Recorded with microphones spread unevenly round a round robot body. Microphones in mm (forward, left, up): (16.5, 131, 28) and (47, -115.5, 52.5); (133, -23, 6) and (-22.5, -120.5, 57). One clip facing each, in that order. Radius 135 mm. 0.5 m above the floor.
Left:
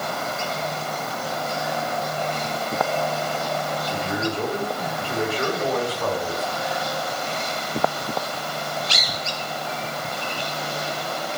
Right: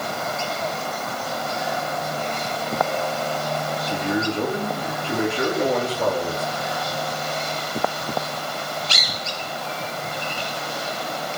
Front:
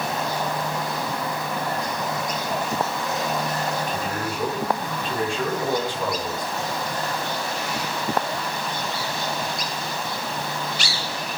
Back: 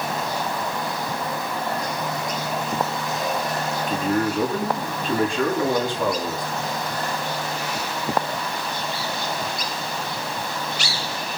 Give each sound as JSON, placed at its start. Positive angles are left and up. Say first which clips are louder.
{"t": 3.9, "sound": "a man speaking", "louder": "right 5 dB, back 6 dB", "azimuth_deg": -155, "distance_m": 6.5}